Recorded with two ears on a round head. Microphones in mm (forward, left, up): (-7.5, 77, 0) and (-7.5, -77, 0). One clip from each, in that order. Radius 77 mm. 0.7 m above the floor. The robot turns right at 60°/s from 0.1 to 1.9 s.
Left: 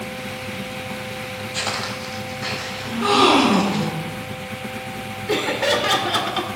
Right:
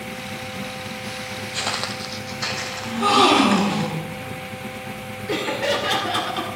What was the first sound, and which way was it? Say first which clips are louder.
Footsteps: even; 5° left (ahead or behind).